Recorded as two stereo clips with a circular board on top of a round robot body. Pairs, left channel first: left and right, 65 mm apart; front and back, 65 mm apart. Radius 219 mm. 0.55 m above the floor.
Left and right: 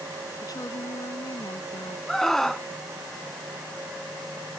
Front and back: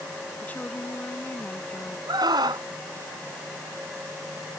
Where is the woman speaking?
65° left.